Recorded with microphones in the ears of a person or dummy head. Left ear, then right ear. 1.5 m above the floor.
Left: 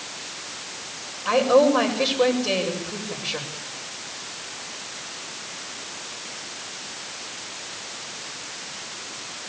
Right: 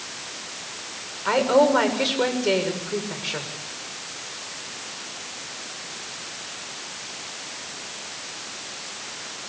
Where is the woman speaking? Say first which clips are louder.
Left 1 dB; 75° right (ahead or behind), 6.5 m.